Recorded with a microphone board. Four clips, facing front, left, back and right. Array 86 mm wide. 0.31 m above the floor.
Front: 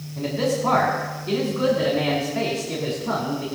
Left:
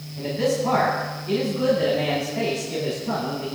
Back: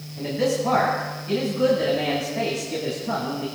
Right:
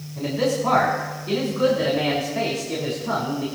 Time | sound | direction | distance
0.2 | a man speaking | 35° right | 3.5 m